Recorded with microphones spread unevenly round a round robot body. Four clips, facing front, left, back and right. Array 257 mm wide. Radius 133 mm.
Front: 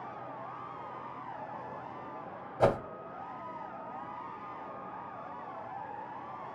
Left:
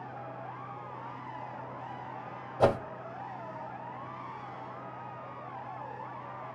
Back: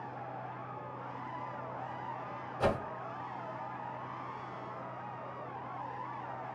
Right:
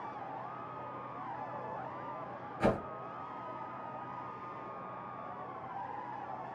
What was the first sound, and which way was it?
A whoosh, 65° left.